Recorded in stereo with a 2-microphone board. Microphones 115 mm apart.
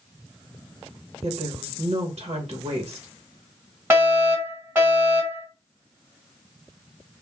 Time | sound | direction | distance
1.2 | a woman speaking | 60° right (ahead or behind) | 0.8 m
3.9 | a fire alarm | 15° right (ahead or behind) | 1.9 m